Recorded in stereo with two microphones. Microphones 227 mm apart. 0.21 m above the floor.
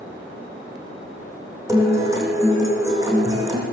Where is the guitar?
15° right (ahead or behind), 4 m.